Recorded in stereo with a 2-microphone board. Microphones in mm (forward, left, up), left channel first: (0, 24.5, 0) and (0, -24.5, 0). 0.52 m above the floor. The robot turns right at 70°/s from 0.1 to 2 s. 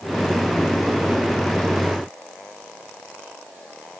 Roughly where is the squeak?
I don't hear a squeak.